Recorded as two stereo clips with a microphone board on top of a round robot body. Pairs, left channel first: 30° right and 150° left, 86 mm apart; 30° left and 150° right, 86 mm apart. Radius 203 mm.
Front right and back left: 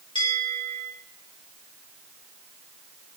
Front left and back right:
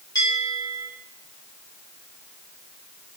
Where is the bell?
5° right, 3.5 m.